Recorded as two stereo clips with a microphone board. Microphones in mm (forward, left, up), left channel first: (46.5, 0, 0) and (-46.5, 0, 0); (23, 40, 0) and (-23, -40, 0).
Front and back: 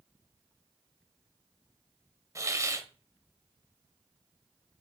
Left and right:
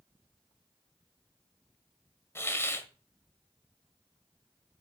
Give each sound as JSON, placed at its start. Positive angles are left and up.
{"t": 2.4, "sound": "a hiss", "azimuth_deg": 125, "distance_m": 0.9}